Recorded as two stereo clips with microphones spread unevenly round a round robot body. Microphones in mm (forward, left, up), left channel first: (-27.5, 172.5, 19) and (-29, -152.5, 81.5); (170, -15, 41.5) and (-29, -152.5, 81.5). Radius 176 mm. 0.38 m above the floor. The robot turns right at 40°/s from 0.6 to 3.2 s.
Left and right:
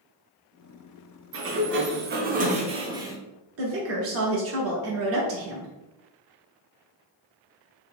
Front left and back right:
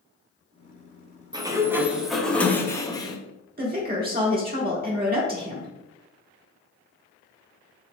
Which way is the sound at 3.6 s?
115° right.